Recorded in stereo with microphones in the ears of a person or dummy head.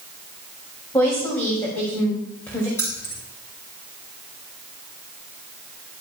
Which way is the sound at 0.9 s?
10° left (ahead or behind).